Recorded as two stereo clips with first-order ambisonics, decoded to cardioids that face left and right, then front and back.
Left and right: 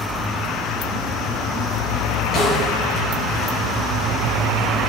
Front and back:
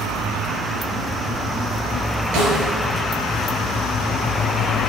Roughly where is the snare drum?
Behind left.